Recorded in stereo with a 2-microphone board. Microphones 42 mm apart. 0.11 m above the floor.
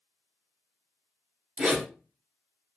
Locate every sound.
1.6 s a zipper: 30° right (ahead or behind), 1.2 m